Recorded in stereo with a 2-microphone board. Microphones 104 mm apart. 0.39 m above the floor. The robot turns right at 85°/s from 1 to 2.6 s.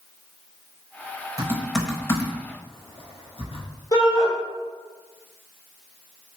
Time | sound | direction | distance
1.4 | typing on a keyboard | 35° right (ahead or behind) | 0.5 m
3.9 | a shout | 35° left (ahead or behind) | 1.2 m